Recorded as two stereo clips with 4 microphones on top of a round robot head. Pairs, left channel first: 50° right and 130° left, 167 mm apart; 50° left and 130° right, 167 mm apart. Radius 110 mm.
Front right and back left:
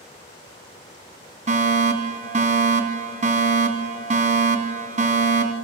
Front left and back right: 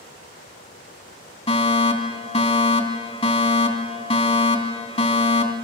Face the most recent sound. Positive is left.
turn(degrees=90)